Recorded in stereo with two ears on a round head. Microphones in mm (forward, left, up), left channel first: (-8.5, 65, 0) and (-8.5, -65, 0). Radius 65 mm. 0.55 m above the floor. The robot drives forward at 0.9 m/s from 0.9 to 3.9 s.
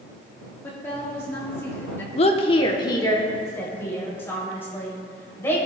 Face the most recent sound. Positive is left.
turn(degrees=15)  # may be behind; listen again after turning